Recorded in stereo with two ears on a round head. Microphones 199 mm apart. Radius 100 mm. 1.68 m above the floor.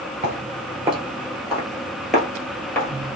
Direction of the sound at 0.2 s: 30° right (ahead or behind).